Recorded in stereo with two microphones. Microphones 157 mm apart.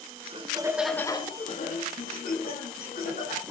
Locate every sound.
0.2 s laughter: 40° right (ahead or behind), 0.9 m; by 3.4 s 75° left (ahead or behind), 2.5 m